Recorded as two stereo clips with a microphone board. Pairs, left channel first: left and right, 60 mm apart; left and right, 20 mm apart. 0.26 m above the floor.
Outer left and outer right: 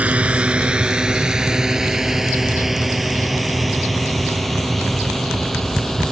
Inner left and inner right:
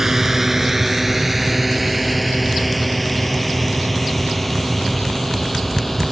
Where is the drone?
25° right (ahead or behind); by 6.1 s 5° left (ahead or behind).